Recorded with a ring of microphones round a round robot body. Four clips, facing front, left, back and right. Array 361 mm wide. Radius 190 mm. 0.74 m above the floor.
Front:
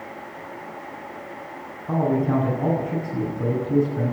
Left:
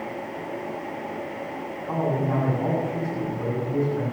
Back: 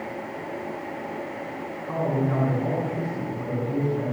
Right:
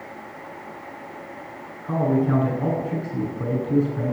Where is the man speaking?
30° right, 9 m.